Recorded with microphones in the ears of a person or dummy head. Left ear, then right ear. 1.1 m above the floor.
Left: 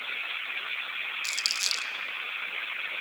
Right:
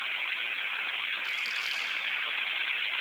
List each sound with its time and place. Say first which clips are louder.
1.2 s crumpling: left 2 dB; 60° left (ahead or behind), 1.5 m